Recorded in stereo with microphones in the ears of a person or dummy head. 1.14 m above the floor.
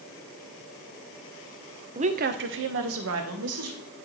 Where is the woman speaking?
30° right (ahead or behind), 0.6 m; by 3.8 s 80° right, 1.7 m.